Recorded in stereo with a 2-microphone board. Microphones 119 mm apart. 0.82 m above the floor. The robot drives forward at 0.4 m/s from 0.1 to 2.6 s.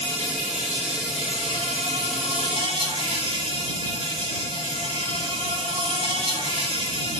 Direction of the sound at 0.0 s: 75° right (ahead or behind).